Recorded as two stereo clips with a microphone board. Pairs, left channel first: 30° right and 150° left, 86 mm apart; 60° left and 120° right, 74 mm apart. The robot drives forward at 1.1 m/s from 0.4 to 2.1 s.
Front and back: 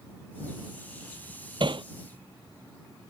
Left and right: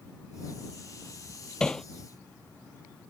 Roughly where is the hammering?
Behind left.